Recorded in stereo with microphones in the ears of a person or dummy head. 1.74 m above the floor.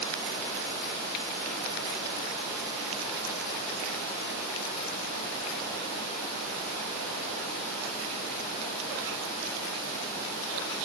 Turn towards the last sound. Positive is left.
No sound to turn to.